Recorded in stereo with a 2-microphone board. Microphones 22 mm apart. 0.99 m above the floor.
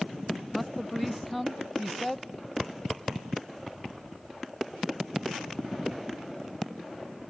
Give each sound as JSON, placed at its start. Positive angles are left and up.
{"t": 0.5, "sound": "a man speaking", "side_deg": 0, "distance_m": 0.7}